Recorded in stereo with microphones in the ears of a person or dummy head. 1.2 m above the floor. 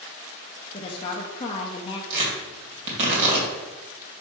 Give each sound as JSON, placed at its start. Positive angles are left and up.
{"t": 0.7, "sound": "a woman speaking", "side_deg": 30, "distance_m": 0.6}
{"t": 2.1, "sound": "tearing paper", "side_deg": -40, "distance_m": 2.5}